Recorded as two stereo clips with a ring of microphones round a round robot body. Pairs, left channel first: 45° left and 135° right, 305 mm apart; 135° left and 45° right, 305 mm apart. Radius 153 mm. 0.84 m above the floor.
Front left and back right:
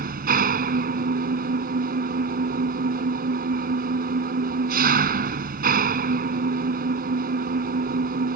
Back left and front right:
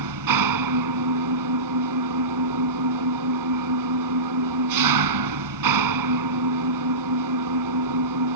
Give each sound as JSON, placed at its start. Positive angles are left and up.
{"t": 0.0, "sound": "an engine running", "azimuth_deg": -70}